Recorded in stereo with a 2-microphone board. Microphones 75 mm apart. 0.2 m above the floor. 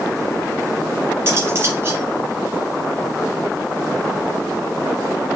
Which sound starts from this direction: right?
Cutlery clinking, at 1.3 s.